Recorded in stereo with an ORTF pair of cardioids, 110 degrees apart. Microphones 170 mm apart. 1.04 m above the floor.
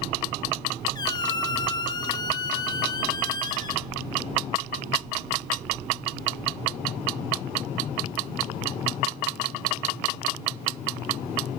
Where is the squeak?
25° left, 0.7 m.